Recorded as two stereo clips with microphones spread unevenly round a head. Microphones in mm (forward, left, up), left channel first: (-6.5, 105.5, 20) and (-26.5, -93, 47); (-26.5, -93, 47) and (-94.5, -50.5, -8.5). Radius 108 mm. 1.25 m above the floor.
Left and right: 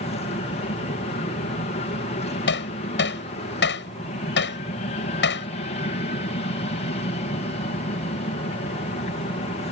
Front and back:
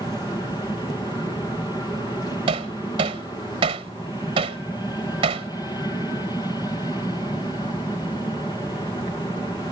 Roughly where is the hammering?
Behind left.